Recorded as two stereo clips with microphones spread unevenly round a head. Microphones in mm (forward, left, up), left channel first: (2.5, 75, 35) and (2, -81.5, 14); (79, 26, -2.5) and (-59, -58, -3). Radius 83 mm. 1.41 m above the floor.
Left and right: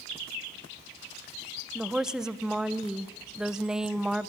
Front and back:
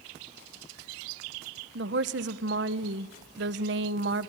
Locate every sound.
1.8 s a woman speaking: 175° right, 1.1 m